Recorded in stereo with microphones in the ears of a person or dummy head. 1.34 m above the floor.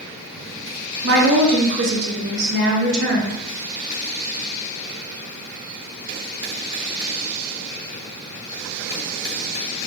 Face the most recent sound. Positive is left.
turn(degrees=-55)  # may be behind; listen again after turning